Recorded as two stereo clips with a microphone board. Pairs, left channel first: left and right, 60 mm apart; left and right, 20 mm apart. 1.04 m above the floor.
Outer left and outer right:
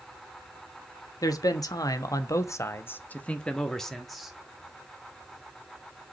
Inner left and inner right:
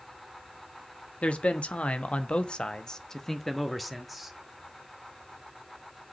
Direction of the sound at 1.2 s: 80° left.